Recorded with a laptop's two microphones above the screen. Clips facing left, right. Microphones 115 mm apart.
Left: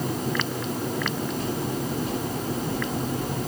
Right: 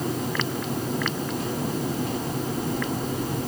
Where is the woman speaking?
No woman speaking in this recording.